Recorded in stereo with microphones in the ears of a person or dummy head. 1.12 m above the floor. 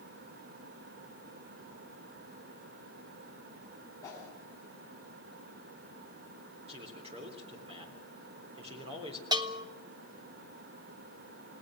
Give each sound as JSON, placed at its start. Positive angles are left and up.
{"t": 4.0, "sound": "a whoosh", "side_deg": 20, "distance_m": 5.5}
{"t": 6.7, "sound": "a man speaking", "side_deg": -30, "distance_m": 3.5}
{"t": 9.3, "sound": "a bell", "side_deg": -20, "distance_m": 0.9}